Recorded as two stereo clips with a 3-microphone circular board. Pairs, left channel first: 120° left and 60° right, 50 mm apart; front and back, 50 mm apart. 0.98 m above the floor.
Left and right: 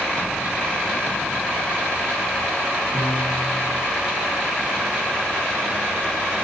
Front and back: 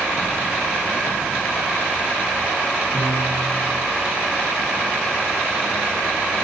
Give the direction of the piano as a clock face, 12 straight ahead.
8 o'clock.